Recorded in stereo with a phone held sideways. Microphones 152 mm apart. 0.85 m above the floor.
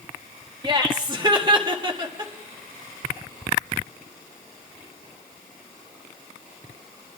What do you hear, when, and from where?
0.6 s laughter: 30° right (ahead or behind), 1.7 m